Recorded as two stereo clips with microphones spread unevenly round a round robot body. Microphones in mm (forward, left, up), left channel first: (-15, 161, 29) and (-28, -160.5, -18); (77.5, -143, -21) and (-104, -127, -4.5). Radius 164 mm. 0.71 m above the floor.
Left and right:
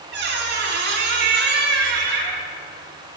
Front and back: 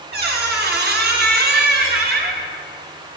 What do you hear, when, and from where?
0.1 s a squeak: 150° right, 1.0 m